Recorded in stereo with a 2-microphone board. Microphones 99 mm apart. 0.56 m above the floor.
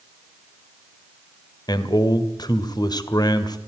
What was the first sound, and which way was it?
A man speaking, 45° left (ahead or behind).